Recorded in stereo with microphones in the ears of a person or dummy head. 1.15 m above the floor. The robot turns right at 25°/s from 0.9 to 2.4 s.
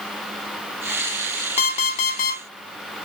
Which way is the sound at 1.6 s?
35° left (ahead or behind).